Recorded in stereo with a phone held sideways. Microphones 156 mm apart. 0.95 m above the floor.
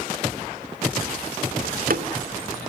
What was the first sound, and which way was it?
A door slam, 65° right (ahead or behind).